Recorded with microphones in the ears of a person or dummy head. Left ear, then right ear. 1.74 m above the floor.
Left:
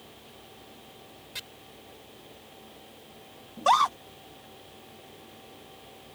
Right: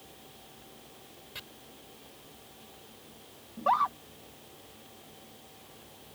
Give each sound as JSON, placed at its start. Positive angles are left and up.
{"t": 1.4, "sound": "chopping", "side_deg": 25}
{"t": 3.6, "sound": "a scream", "side_deg": 75}